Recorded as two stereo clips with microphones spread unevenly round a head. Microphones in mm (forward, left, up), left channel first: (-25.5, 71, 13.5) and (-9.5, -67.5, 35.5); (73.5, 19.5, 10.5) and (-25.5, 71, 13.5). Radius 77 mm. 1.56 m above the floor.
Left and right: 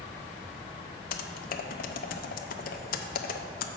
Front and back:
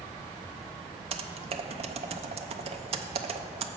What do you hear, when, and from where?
1.1 s typing on a keyboard: 125° left, 0.6 m